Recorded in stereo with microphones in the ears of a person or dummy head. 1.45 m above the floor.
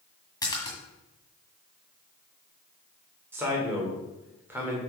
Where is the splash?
20° left (ahead or behind), 1.8 m.